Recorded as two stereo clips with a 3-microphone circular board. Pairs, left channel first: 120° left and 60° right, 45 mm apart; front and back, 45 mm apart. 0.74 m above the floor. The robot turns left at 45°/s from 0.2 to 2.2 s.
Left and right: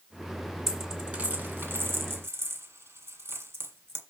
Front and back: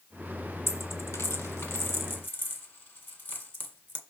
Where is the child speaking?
No child speaking in this recording.